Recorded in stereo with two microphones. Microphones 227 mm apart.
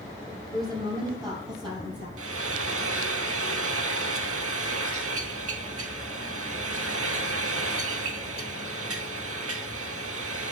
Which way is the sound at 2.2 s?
75° right (ahead or behind).